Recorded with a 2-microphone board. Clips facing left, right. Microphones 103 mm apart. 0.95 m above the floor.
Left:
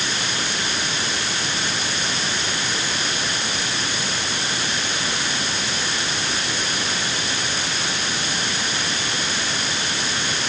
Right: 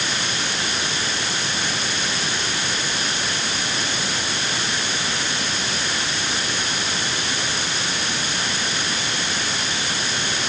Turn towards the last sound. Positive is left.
No sound to turn to.